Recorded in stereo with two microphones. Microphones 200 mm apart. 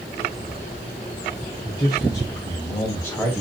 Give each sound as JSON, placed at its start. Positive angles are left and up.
{"t": 1.6, "sound": "a man speaking", "side_deg": 25, "distance_m": 3.5}